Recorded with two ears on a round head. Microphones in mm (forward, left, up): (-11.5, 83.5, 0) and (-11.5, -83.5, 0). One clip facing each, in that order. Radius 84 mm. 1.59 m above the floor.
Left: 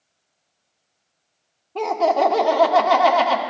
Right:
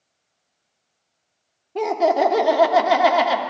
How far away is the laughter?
About 1.0 m.